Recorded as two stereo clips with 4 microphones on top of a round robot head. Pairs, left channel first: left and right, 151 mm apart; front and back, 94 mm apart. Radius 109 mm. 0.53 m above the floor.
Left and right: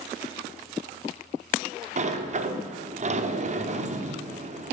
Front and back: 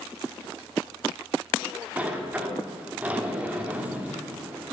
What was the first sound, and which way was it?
A sliding door, 105° right.